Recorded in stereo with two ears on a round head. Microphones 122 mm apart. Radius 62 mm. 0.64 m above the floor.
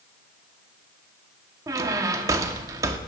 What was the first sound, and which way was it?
A squeak, 25° right (ahead or behind).